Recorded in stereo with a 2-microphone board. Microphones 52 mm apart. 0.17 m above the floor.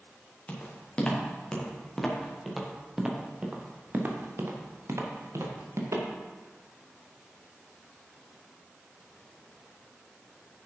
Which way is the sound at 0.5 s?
30° left (ahead or behind).